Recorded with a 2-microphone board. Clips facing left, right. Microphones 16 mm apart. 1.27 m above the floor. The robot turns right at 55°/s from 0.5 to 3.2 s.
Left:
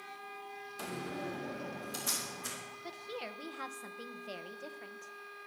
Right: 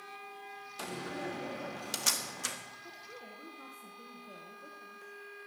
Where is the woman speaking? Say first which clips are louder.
Left 5 dB; 45° left (ahead or behind), 0.9 m; by 5.1 s 65° left (ahead or behind), 0.9 m.